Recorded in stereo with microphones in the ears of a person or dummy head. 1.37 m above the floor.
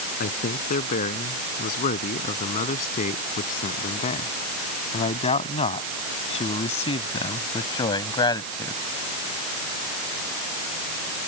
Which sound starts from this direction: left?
A man speaking, at 0.2 s.